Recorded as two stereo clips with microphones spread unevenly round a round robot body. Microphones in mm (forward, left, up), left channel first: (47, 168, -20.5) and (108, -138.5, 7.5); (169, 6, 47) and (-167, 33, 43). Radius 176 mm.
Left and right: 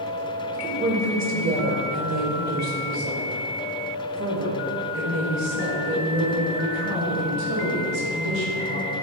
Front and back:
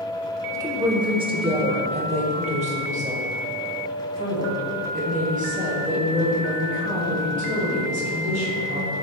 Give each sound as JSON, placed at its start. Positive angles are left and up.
{"t": 0.5, "sound": "a woman speaking", "azimuth_deg": -120, "distance_m": 1.1}